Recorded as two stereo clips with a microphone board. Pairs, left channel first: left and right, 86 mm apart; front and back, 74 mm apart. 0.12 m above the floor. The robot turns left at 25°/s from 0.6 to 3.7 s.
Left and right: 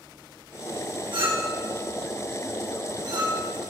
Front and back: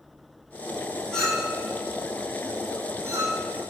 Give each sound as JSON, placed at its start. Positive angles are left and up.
{"t": 1.1, "sound": "a clink", "azimuth_deg": -80, "distance_m": 3.5}